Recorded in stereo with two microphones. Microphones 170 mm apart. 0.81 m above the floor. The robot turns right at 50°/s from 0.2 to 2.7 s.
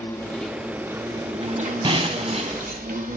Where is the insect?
165° left, 1.2 m; by 3.2 s 70° right, 1.2 m.